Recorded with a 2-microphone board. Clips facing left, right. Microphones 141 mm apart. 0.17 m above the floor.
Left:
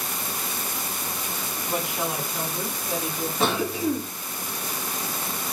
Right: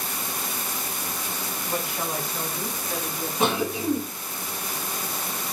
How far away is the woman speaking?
About 1.6 m.